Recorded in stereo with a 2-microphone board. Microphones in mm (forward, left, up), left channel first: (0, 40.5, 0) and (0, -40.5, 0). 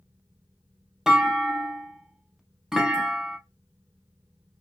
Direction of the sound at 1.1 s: 5° right (ahead or behind).